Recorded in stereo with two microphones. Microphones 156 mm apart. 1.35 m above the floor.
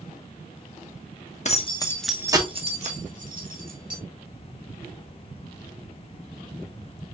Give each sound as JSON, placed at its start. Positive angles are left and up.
{"t": 1.4, "sound": "keys jangling", "side_deg": 50, "distance_m": 0.9}